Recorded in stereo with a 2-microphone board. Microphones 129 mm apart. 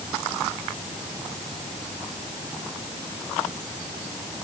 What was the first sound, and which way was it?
Only background noise.